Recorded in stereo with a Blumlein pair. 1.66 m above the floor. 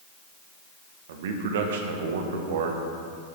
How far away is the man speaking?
About 1.5 m.